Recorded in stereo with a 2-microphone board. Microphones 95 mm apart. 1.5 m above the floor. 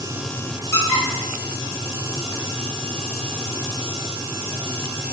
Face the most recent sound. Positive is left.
turn(degrees=30)  # may be behind; listen again after turning